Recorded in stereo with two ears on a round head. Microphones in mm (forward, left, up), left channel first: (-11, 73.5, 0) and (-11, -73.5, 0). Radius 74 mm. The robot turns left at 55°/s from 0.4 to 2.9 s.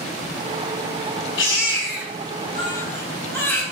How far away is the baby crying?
About 3.5 m.